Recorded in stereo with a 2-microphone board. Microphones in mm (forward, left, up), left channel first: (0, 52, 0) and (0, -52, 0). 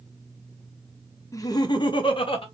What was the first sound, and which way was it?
Laughter, 30° left (ahead or behind).